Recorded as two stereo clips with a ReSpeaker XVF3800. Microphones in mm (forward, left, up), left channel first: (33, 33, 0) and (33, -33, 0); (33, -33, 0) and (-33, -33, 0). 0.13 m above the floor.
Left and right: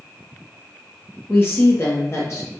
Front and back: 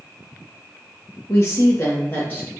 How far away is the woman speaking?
About 3 m.